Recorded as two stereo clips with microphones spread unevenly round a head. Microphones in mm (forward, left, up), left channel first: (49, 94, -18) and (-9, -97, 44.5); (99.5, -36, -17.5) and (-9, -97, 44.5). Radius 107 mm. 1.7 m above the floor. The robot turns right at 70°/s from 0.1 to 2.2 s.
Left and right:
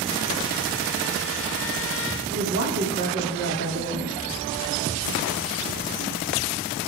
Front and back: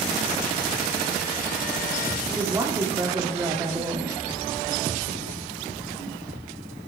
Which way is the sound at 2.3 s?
90° right.